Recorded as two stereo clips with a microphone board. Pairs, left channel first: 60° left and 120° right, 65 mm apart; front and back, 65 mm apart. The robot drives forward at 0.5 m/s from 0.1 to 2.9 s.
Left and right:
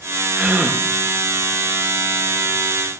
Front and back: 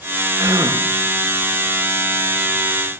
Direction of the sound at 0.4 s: 165° left.